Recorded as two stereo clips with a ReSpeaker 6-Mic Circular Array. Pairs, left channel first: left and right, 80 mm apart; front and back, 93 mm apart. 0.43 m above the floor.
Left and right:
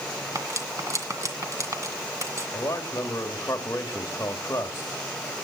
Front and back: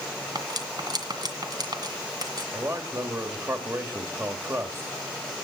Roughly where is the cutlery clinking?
Behind right.